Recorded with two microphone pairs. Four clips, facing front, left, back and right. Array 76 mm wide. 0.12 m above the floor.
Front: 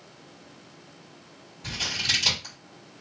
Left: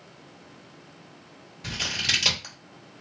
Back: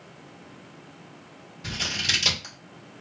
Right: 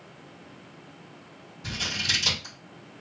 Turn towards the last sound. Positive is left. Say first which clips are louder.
# left 1 dB, back 1 dB
turn(degrees=110)